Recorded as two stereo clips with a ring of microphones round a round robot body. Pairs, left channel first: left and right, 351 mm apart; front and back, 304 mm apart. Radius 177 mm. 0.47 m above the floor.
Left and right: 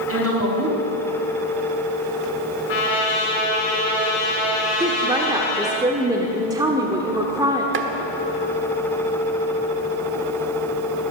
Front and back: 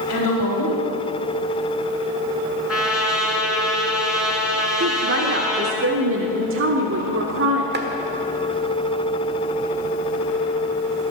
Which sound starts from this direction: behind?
A woman speaking, at 4.8 s.